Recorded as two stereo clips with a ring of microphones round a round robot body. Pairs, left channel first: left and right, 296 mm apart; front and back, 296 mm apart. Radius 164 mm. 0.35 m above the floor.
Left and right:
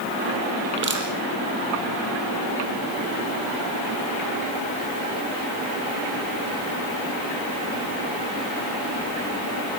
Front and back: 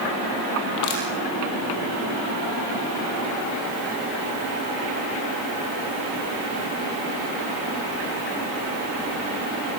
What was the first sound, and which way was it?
Crushing, 40° right.